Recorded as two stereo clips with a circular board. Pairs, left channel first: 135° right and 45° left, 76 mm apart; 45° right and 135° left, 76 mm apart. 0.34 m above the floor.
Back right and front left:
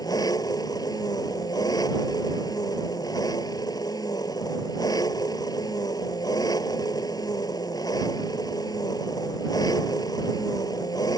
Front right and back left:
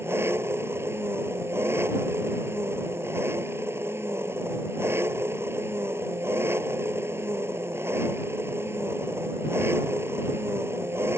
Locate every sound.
0.0 s an engine running: 170° right